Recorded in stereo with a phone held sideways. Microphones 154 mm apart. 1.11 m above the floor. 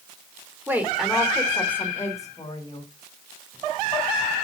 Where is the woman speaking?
15° right (ahead or behind), 2.5 m; by 2.9 s 30° left (ahead or behind), 4.5 m.